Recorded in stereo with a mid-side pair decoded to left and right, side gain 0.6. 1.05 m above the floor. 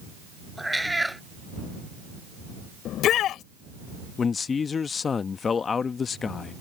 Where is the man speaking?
35° left.